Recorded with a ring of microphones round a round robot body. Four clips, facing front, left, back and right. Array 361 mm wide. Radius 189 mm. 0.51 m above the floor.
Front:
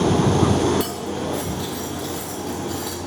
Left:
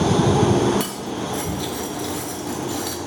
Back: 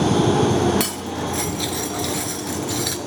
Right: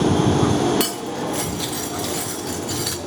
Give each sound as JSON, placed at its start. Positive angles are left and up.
{"t": 0.8, "sound": "cutlery clinking", "azimuth_deg": -140, "distance_m": 0.6}